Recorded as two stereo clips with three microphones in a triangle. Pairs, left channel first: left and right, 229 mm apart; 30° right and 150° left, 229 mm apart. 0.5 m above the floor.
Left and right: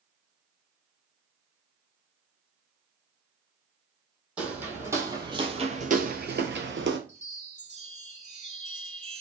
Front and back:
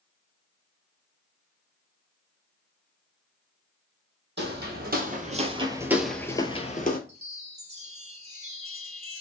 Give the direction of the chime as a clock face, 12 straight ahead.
5 o'clock.